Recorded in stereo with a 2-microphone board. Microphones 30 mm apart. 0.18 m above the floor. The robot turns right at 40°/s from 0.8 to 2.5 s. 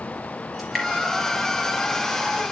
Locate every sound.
0.6 s dripping: 10° left (ahead or behind), 4.5 m